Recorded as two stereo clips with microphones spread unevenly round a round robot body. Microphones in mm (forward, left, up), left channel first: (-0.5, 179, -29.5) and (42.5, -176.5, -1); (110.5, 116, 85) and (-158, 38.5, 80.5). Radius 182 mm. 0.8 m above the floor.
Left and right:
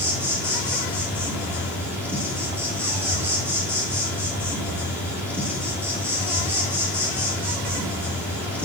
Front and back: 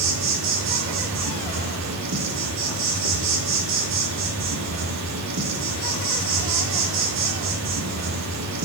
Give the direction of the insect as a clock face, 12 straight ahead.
6 o'clock.